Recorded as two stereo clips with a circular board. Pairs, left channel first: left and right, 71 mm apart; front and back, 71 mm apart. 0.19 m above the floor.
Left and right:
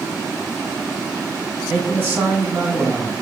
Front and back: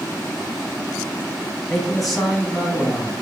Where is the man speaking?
90° right, 1.1 m.